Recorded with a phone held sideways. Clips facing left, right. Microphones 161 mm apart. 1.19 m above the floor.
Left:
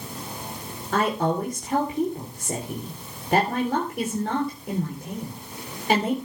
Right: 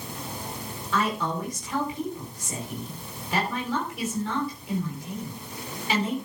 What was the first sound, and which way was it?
A woman speaking, 55° left (ahead or behind).